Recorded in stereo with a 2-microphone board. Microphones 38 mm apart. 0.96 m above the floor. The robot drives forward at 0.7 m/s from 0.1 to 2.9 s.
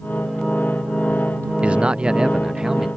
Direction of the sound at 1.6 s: 30° right (ahead or behind).